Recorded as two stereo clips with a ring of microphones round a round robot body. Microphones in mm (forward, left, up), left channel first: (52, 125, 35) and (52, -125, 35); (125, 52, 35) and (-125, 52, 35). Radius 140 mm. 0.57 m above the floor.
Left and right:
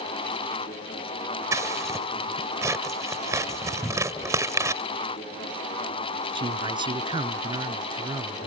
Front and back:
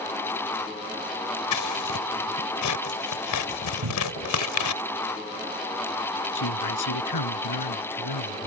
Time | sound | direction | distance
1.5 | scissors | 10° right | ?
3.8 | a cupboard door | 175° left | ?
6.3 | a man speaking | 15° right | ?